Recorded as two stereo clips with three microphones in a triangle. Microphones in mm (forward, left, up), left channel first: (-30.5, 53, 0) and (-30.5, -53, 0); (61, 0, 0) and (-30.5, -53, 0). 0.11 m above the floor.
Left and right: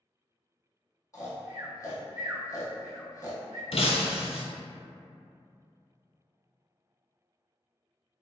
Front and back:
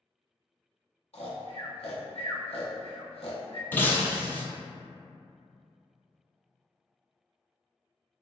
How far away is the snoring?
About 0.7 m.